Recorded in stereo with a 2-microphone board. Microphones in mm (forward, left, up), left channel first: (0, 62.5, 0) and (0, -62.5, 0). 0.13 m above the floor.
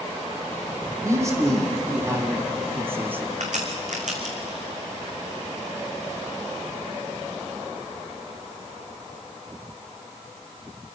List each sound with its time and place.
1.0 s a man speaking: 25° right (ahead or behind), 5 m; by 3.3 s 15° right (ahead or behind), 2.5 m
3.4 s a crack: 70° right (ahead or behind), 3.5 m